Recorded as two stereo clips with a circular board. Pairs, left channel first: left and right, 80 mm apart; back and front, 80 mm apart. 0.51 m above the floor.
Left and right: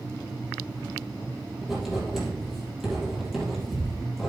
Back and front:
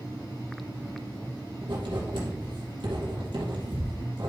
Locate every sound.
1.6 s writing: 5° right, 5.5 m